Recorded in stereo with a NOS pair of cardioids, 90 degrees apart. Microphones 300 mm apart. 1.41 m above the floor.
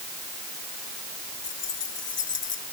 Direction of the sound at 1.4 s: 55° left.